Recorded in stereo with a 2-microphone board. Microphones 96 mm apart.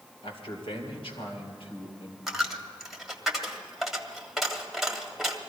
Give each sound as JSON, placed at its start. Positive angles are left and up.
{"t": 0.2, "sound": "a man speaking", "side_deg": 70, "distance_m": 2.5}
{"t": 2.3, "sound": "a dropped coin", "side_deg": 0, "distance_m": 1.1}